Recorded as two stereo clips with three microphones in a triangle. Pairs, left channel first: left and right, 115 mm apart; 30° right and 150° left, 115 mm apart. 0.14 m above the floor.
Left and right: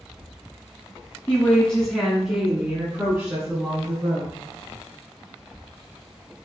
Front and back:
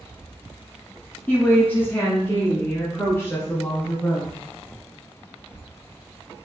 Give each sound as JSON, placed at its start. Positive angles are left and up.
{"t": 1.3, "sound": "a woman speaking", "azimuth_deg": 30, "distance_m": 1.9}